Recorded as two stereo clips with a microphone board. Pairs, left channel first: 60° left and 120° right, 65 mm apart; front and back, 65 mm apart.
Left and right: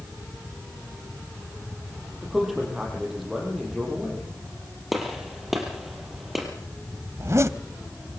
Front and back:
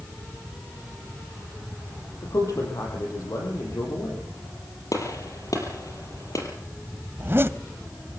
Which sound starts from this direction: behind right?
A zipper, at 7.2 s.